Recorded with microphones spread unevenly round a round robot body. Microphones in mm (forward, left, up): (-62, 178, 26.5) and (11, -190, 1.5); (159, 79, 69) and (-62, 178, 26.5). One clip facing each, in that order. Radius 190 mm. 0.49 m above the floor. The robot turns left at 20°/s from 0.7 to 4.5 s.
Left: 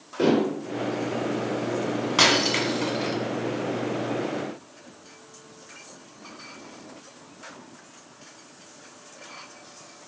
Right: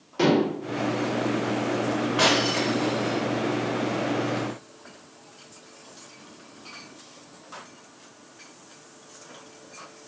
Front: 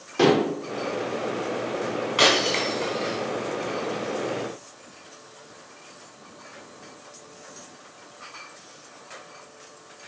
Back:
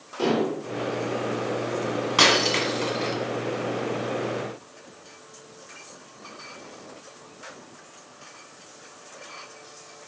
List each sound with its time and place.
0.2 s dishes clattering: 15° right, 1.0 m
2.2 s breaking glass: 125° left, 2 m; by 3.2 s 105° left, 2 m